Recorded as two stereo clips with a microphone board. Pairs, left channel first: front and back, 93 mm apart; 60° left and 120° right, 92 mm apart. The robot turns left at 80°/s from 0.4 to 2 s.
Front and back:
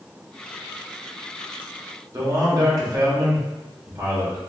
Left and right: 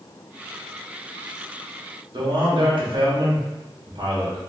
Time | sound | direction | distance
2.1 | a man speaking | 135° right | 1.0 m